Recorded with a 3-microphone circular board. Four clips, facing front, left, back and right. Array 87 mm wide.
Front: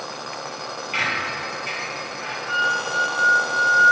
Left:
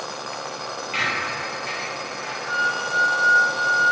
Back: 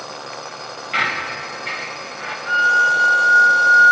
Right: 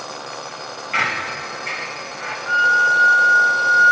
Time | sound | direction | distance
0.9 | a squeak | 125° right | 0.6 m
2.5 | a violin | 130° right | 0.6 m